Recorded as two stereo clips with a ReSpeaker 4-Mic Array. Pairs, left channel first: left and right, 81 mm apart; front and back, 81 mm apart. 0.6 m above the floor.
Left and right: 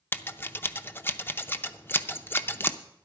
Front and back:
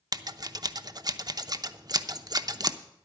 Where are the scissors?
150° left, 0.5 m.